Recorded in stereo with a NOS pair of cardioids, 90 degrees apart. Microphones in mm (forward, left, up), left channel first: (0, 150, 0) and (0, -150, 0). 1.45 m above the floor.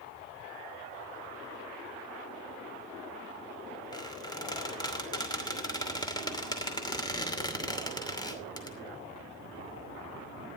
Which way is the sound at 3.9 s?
15° left.